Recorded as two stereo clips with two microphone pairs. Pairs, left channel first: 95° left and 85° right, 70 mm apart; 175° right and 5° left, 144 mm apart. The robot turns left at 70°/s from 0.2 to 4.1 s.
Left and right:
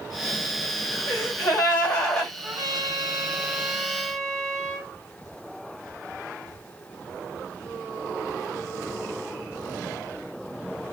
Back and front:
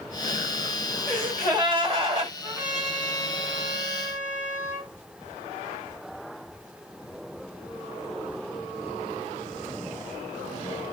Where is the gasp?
95° left, 2.5 m; by 2.3 s 5° left, 2.5 m.